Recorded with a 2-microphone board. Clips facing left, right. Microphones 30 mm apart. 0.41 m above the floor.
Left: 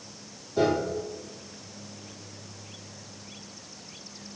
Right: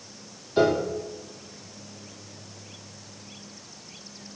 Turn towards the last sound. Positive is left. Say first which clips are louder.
# right 3 dB
turn(degrees=-65)  # may be behind; listen again after turning